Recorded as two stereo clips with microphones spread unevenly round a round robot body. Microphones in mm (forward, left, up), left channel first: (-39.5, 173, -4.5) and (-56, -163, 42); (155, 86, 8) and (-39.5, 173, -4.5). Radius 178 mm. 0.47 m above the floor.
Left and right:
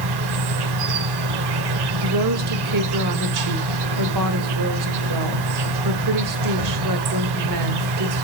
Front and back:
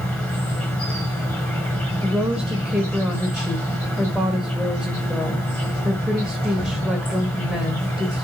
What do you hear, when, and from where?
0.0 s an insect: 110° right, 1.0 m
2.0 s a woman speaking: 120° right, 1.6 m